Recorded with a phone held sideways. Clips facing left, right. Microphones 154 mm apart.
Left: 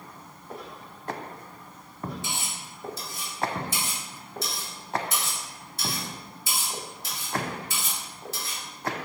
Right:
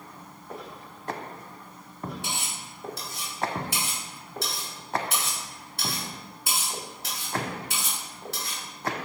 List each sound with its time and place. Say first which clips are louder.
2.2 s cutlery clinking: even; 65° right (ahead or behind), 0.9 m